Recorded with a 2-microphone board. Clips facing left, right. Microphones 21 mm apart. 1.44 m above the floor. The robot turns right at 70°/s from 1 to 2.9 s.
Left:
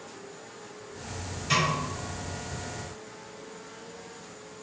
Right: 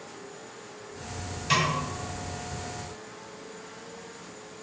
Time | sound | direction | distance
1.5 | a snare drum | 20° right (ahead or behind) | 1.8 m